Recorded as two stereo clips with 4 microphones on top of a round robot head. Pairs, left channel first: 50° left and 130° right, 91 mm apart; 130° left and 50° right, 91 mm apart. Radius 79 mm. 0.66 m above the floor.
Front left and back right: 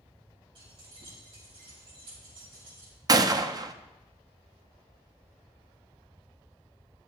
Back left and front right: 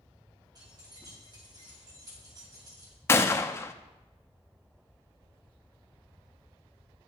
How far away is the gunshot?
About 0.5 m.